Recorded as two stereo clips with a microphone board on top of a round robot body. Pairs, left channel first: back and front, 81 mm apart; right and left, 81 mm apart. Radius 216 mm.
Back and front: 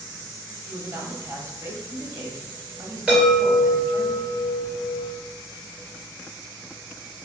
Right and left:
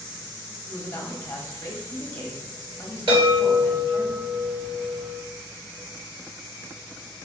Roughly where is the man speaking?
Ahead right.